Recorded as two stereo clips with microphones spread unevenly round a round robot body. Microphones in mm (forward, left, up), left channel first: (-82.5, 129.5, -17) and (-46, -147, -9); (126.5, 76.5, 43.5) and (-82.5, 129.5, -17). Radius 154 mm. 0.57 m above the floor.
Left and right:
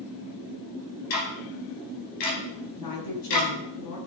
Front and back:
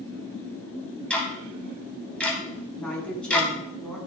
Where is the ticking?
75° left, 3 m.